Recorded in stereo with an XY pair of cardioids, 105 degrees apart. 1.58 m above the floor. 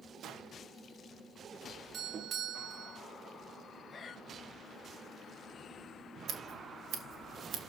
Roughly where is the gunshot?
Right.